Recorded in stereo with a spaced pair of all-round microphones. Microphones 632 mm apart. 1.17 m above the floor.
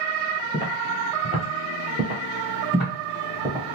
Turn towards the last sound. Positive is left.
turn(degrees=-30)  # may be behind; listen again after turning